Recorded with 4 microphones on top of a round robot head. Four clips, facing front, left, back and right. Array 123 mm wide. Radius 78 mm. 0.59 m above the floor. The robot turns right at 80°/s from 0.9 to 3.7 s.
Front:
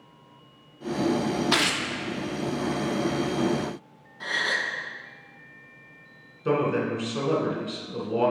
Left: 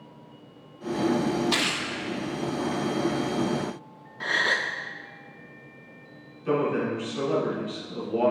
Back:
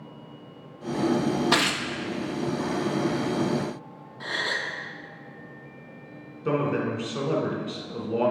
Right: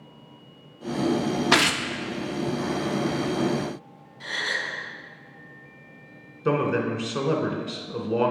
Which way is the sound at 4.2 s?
105° left.